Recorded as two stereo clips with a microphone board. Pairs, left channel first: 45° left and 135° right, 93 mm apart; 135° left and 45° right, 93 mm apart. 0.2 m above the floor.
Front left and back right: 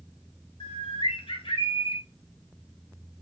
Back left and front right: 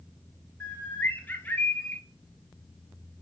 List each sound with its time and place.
0.6 s a bird: 65° left, 0.6 m